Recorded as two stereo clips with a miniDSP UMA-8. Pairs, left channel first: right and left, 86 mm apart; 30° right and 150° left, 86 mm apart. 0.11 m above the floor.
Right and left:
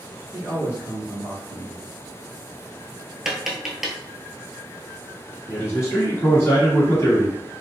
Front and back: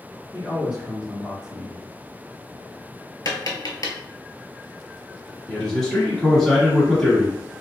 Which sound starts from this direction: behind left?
A man speaking, at 0.3 s.